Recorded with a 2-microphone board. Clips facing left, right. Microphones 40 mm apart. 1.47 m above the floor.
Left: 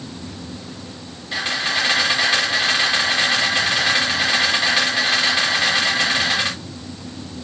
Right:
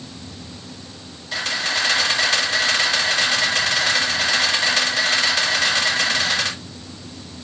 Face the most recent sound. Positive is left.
turn(degrees=15)  # may be behind; listen again after turning